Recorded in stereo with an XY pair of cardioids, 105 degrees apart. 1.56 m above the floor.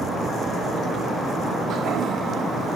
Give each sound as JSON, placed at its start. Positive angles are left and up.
{"t": 1.7, "sound": "a toilet flushing", "azimuth_deg": -60, "distance_m": 0.6}